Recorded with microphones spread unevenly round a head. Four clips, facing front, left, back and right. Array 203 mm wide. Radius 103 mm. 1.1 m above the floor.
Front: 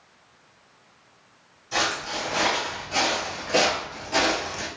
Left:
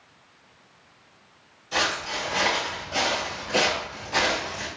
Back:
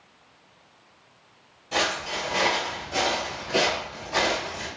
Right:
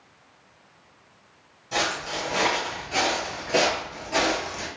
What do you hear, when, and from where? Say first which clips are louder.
1.7 s footsteps: even, even; 140° right, 1.6 m; by 4.7 s 30° right, 1.7 m